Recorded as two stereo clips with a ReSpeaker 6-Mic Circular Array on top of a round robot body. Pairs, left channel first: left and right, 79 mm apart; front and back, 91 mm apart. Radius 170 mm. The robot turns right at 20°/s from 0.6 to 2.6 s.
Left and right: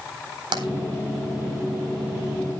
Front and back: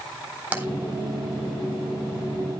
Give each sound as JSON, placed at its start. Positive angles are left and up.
{"t": 0.5, "sound": "tapping", "azimuth_deg": -110, "distance_m": 4.0}